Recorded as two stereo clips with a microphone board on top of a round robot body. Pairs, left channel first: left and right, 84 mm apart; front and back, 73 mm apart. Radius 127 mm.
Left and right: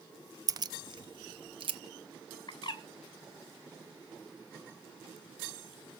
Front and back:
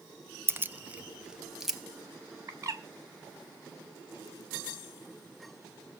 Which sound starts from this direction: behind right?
Keys jangling, at 0.5 s.